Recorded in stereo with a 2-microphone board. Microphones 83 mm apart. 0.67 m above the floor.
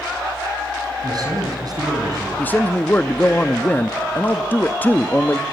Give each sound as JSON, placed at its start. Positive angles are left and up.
{"t": 1.0, "sound": "a man speaking", "side_deg": -50, "distance_m": 5.0}
{"t": 2.4, "sound": "a man speaking", "side_deg": 20, "distance_m": 0.7}